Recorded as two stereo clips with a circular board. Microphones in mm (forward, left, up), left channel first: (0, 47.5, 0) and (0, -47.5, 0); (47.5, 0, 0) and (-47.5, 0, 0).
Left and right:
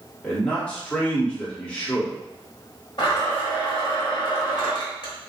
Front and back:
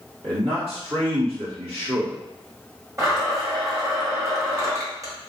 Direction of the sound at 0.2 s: 165° left.